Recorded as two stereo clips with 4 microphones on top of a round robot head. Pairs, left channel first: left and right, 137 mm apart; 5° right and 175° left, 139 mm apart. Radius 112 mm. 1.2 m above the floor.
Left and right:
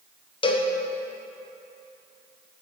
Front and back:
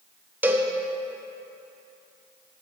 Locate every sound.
0.4 s a cowbell: 105° left, 0.7 m